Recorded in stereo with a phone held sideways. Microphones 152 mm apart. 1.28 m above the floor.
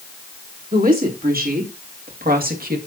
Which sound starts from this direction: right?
A woman speaking, at 0.7 s.